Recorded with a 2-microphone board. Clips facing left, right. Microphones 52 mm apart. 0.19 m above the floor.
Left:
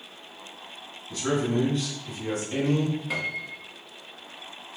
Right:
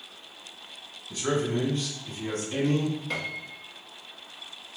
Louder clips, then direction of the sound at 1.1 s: Left 1 dB; 5° right (ahead or behind).